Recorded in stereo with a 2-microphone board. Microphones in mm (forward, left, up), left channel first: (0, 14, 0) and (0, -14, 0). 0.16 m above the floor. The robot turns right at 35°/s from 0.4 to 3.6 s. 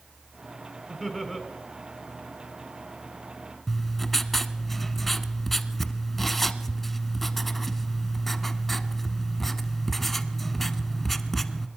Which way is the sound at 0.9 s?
15° left (ahead or behind).